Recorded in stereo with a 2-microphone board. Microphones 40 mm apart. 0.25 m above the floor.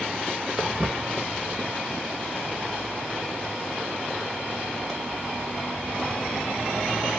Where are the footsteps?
25° right (ahead or behind), 1.8 m; by 7.1 s 5° left (ahead or behind), 6.5 m.